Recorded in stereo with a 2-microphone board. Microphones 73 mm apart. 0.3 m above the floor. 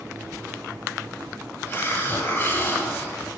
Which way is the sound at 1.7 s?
30° left (ahead or behind).